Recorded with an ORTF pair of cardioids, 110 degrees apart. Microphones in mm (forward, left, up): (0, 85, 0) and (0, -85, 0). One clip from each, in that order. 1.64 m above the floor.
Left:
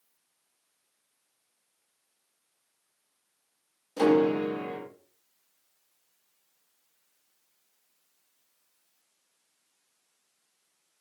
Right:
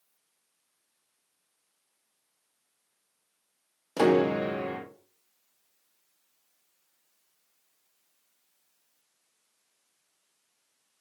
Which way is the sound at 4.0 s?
45° right.